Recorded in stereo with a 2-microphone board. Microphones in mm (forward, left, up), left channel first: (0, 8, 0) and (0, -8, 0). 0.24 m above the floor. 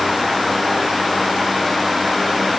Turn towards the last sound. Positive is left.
No sound to turn to.